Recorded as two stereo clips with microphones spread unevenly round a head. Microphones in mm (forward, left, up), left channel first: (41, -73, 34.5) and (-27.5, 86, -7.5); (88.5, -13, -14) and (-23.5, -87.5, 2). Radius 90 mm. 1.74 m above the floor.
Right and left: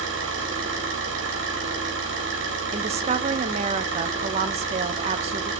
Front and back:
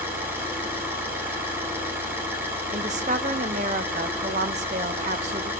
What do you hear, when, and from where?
0.0 s an engine running: 140° left, 5 m
2.7 s a woman speaking: 175° left, 0.9 m